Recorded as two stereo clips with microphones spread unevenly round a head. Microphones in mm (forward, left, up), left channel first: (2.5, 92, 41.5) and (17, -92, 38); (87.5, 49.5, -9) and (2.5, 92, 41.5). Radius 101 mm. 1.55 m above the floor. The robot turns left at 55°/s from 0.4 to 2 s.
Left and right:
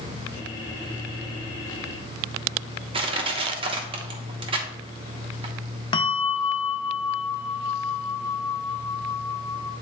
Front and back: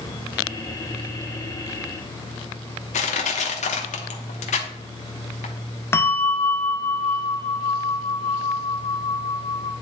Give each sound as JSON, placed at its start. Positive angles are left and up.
{"t": 2.9, "sound": "crushing", "azimuth_deg": -25, "distance_m": 0.9}
{"t": 5.9, "sound": "a bell", "azimuth_deg": 30, "distance_m": 0.6}